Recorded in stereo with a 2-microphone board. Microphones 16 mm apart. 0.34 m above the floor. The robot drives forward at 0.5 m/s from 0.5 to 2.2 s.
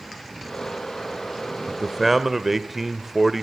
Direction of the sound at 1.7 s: 10° right (ahead or behind).